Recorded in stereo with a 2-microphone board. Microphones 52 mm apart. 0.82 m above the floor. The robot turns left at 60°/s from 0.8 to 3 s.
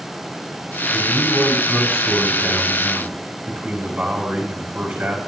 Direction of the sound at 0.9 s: 85° left.